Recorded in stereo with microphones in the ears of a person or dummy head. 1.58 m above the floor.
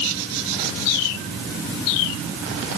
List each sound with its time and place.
Only background noise.